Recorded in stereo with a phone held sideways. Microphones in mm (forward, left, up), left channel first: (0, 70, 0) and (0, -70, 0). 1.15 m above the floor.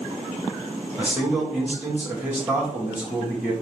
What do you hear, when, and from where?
1.0 s a man speaking: 10° right (ahead or behind), 1.6 m